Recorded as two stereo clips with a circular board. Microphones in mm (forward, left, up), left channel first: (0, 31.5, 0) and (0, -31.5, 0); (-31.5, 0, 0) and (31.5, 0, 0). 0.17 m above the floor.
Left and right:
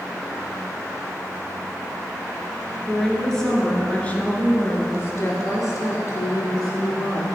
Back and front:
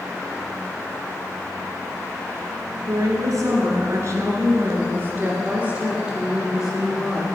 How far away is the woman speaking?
About 3 m.